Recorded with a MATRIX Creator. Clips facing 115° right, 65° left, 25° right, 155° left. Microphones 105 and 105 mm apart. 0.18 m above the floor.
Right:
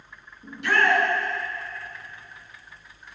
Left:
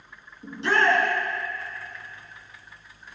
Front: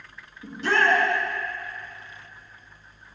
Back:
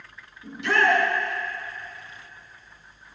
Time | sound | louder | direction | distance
0.4 | a shout | even, even | 20° left | 1.8 m